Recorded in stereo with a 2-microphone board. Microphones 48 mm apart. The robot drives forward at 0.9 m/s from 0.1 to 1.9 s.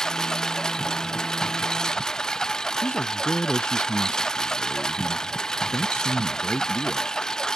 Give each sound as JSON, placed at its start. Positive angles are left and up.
{"t": 0.0, "sound": "a lawn mower", "side_deg": 15}
{"t": 2.8, "sound": "a man speaking", "side_deg": 50}